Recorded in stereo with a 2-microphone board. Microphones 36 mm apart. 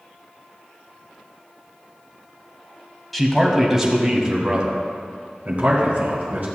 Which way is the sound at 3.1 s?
5° left (ahead or behind).